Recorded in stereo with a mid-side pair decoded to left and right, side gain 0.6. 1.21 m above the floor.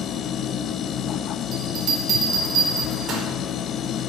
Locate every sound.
0.0 s a machine running: 50° left, 0.7 m
1.5 s a bell: 50° right, 4 m